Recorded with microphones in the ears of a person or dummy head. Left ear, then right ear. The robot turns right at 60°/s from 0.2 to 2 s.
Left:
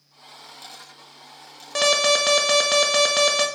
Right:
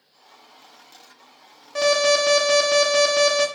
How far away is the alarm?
About 0.6 m.